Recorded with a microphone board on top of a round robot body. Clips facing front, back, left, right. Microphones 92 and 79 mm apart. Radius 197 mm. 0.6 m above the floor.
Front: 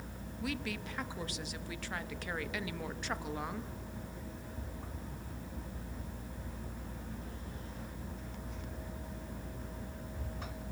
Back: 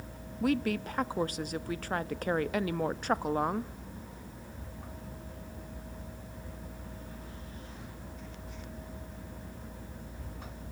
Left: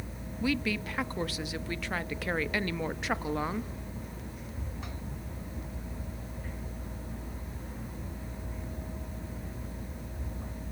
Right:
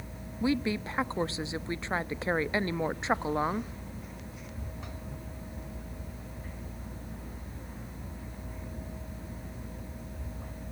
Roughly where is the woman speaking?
Behind right.